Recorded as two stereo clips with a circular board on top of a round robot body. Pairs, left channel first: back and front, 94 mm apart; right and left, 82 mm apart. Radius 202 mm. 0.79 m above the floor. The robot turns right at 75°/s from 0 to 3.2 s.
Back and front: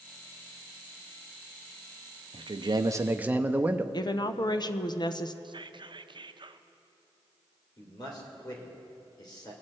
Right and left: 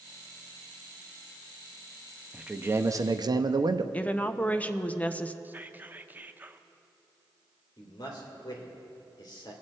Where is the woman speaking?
160° right, 0.8 m.